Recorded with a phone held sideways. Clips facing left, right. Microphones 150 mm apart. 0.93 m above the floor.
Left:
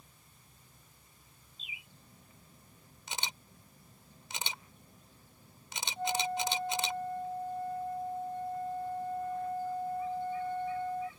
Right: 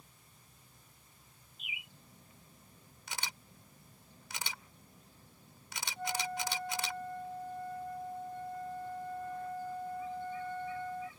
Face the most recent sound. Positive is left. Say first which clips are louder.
# left 5 dB
turn(degrees=25)  # may be behind; listen again after turning